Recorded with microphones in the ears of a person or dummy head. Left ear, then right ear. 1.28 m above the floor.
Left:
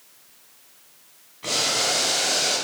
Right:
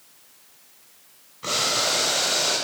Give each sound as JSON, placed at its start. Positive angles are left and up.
{"t": 1.4, "sound": "boiling", "side_deg": 0, "distance_m": 2.5}